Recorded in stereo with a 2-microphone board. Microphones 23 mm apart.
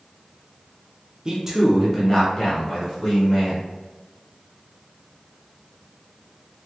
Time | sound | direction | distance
1.2 | a man speaking | 30° right (ahead or behind) | 0.7 m